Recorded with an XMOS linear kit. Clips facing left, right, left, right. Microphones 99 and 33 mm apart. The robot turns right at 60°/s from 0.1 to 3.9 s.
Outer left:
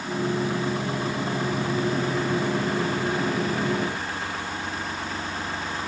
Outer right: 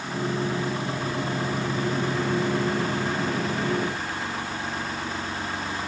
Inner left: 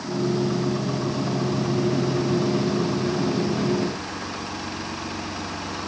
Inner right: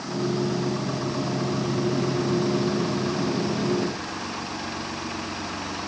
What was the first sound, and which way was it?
Only background noise.